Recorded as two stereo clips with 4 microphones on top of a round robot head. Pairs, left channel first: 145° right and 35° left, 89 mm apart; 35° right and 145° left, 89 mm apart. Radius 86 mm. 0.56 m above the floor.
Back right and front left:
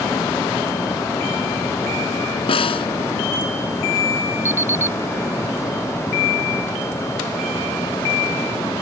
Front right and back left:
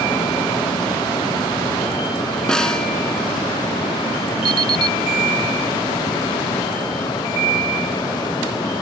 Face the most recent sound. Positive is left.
turn(degrees=100)